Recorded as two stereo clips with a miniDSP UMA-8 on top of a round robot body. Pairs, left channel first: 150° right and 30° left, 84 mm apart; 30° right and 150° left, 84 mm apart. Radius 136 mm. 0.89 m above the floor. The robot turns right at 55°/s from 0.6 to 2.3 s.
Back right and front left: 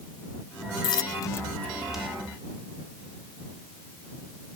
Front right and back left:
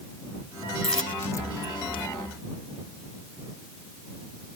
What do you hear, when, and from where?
0.8 s a dropped coin: 115° right; by 2.0 s 50° right